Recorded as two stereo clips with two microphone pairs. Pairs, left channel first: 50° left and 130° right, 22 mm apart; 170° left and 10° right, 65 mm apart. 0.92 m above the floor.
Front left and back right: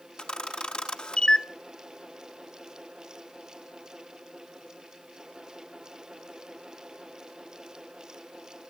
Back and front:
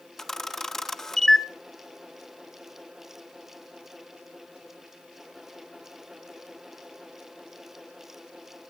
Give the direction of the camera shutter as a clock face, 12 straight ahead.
9 o'clock.